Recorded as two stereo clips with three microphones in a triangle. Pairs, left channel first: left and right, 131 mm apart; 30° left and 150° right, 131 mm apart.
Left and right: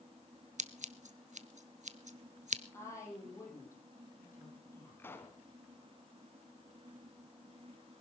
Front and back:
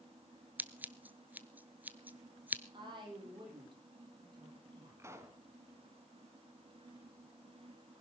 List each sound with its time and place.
0.6 s scissors: 70° right, 0.7 m
2.7 s a woman speaking: 160° left, 7.5 m
5.0 s a pop: 155° left, 1.7 m